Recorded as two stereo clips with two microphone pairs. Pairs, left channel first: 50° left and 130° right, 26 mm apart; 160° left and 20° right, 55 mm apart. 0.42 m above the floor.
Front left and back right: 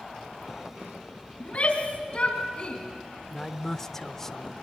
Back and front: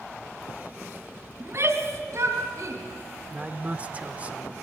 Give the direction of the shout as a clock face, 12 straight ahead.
12 o'clock.